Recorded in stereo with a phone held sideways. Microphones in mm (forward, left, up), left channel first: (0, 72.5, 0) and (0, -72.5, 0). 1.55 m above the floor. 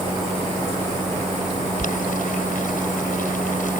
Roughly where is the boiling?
Left.